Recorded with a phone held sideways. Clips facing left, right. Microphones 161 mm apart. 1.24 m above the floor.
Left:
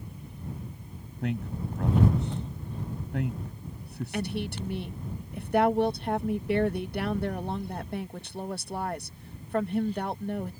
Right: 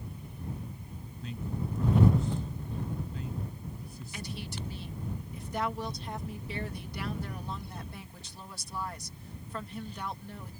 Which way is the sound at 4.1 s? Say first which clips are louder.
Left 9 dB; 70° left (ahead or behind).